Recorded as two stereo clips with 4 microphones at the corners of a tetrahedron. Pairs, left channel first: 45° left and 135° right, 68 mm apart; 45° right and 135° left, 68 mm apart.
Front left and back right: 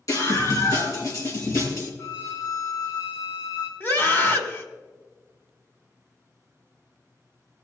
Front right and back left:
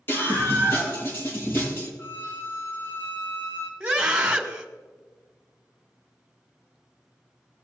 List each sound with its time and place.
0.1 s a scream: 10° left, 6 m
2.0 s a violin: 5° left, 1.8 m
3.8 s a scream: 70° left, 1.8 m